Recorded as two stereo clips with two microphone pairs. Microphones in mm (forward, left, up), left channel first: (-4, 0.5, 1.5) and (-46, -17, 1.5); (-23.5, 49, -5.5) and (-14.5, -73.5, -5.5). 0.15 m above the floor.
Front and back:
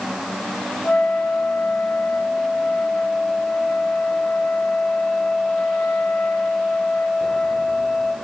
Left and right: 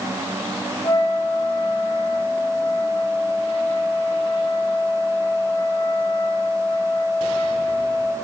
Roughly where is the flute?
Ahead left.